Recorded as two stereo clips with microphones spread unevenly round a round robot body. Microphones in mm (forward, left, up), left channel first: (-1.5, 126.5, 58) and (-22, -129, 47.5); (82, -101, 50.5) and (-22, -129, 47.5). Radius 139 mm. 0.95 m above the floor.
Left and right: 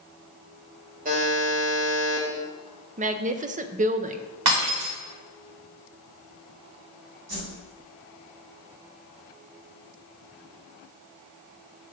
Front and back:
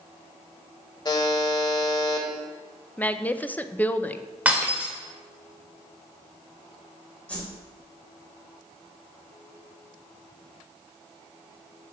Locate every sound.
1.1 s a buzzer: 35° right, 1.5 m
3.0 s a woman speaking: 55° right, 0.6 m
4.5 s breaking glass: 90° right, 2 m
7.3 s a whoosh: 60° right, 3 m